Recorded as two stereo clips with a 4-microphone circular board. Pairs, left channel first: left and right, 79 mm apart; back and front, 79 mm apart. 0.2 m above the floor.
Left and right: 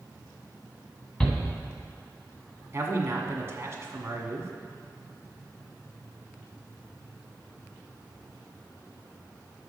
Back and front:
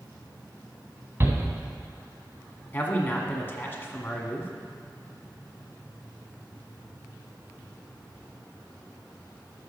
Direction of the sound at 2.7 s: 130° right.